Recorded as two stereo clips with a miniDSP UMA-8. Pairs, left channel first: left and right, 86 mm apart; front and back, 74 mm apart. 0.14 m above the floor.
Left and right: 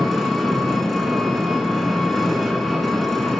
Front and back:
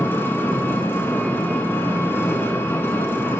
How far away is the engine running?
About 0.9 m.